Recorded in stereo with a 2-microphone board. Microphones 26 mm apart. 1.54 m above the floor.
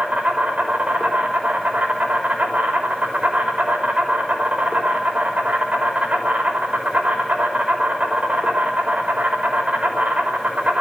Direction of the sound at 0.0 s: 75° right (ahead or behind).